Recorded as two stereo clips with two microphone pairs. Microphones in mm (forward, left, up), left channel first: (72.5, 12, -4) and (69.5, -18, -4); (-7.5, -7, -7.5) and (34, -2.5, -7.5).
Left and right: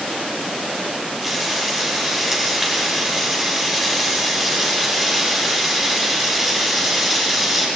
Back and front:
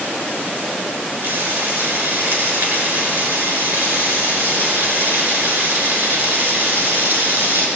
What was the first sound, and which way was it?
Frying, 20° right.